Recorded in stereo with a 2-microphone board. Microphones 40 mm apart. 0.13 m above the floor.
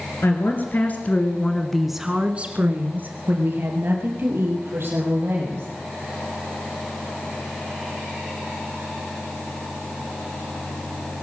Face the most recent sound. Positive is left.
turn(degrees=-70)  # may be behind; listen again after turning